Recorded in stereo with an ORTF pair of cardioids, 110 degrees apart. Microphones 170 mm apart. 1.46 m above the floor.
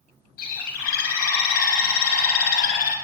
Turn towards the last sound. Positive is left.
turn(degrees=65)